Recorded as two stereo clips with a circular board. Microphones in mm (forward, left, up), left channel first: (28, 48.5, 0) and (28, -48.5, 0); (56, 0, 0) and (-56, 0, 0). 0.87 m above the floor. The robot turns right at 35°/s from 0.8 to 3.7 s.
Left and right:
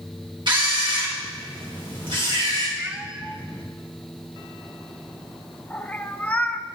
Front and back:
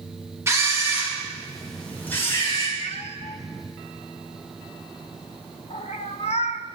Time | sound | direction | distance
0.5 | a camera shutter | 115° right | 4 m
2.8 | a cat meowing | 15° right | 0.7 m